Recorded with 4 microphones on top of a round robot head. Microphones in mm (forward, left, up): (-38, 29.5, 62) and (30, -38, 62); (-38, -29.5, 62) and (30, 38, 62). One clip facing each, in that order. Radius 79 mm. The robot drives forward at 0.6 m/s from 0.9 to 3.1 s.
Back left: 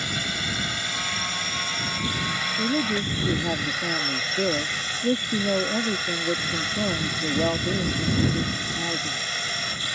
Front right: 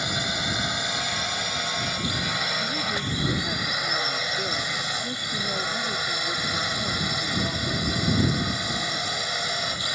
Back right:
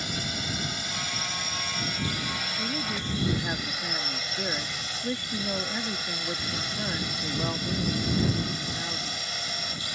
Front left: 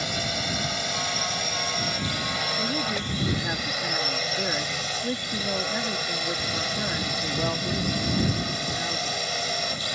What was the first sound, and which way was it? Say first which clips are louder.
A drone: front right 2 dB, front left 4 dB; 30° left.